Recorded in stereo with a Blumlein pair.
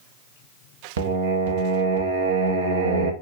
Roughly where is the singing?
Ahead right.